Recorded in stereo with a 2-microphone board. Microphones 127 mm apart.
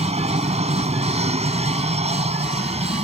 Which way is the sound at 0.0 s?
55° right (ahead or behind).